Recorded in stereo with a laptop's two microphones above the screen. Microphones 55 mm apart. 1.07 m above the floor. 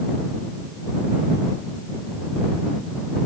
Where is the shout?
No shout in this recording.